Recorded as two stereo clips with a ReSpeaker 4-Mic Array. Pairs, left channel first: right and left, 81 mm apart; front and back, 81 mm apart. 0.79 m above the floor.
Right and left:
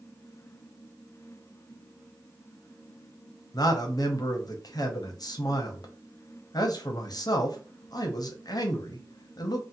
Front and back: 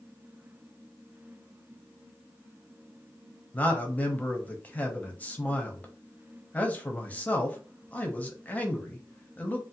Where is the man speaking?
70° right, 0.7 m.